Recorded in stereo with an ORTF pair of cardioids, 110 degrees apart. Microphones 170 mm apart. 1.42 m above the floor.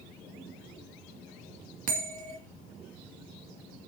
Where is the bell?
50° right, 2.5 m.